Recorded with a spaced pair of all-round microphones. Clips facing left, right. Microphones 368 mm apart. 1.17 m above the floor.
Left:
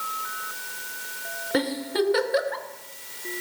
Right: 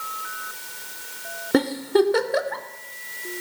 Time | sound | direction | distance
1.5 | a giggle | 60° right (ahead or behind) | 0.6 m